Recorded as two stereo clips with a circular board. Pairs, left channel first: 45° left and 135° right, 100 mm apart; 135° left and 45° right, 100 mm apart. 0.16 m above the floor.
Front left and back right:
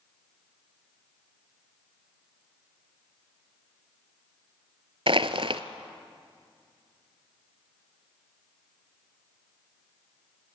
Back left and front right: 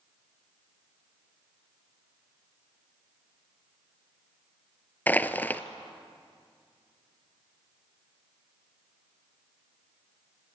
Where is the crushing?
155° right, 0.8 m.